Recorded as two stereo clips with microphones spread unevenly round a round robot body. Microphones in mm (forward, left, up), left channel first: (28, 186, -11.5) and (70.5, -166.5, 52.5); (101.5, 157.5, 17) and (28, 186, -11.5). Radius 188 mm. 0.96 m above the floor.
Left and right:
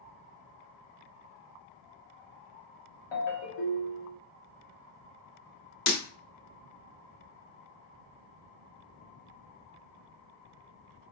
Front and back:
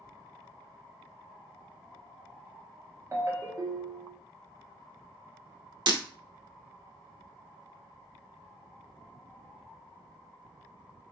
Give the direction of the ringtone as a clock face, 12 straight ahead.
9 o'clock.